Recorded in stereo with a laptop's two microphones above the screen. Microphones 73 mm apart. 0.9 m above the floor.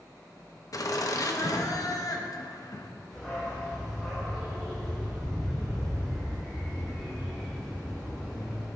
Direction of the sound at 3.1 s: 5° left (ahead or behind).